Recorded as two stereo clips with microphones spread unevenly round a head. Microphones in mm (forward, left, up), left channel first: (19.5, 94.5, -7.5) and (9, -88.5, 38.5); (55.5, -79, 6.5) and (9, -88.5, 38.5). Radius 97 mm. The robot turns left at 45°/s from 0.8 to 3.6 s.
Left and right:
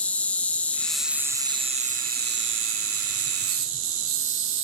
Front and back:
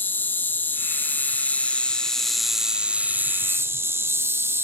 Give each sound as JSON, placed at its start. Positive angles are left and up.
{"t": 0.0, "sound": "an insect", "azimuth_deg": 10, "distance_m": 1.2}